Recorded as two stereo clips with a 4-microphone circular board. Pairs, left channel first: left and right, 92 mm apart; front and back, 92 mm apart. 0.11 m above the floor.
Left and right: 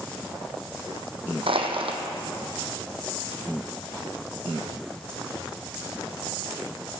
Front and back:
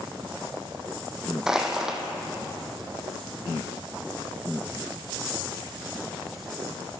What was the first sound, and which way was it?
Crushing, 95° right.